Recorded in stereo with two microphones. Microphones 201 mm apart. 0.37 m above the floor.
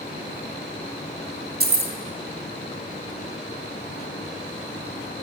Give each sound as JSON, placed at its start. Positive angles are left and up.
{"t": 1.6, "sound": "keys jangling", "side_deg": -50, "distance_m": 0.8}